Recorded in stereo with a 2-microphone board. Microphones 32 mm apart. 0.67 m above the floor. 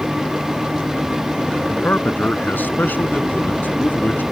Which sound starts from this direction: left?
A man speaking, at 1.7 s.